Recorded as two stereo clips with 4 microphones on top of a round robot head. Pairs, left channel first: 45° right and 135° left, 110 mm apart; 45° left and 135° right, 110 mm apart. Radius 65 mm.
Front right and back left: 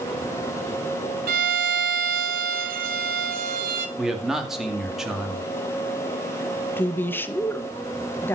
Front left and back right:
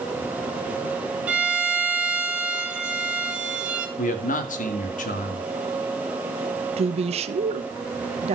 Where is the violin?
145° left, 1.5 m.